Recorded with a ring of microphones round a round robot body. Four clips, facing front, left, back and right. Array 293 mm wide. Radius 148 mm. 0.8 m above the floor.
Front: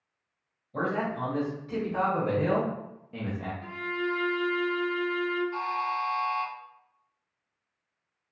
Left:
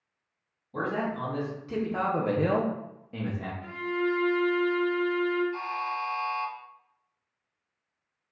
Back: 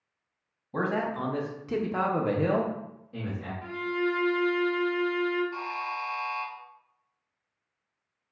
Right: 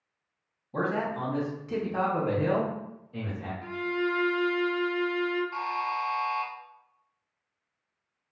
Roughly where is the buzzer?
Right.